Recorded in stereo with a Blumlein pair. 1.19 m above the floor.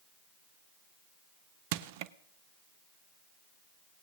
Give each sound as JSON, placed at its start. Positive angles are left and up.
{"t": 1.7, "sound": "crushing", "azimuth_deg": -50, "distance_m": 0.6}